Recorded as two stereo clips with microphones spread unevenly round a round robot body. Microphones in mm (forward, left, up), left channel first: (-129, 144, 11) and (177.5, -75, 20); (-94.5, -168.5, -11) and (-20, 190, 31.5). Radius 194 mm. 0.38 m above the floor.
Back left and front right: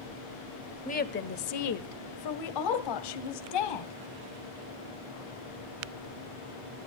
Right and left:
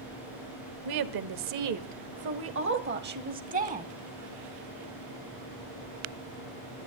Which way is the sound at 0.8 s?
80° left.